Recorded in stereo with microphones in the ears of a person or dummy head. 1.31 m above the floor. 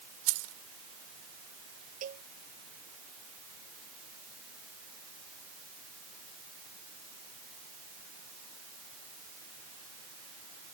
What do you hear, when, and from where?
0.3 s keys jangling: 80° right
2.0 s a cowbell: 45° right (ahead or behind)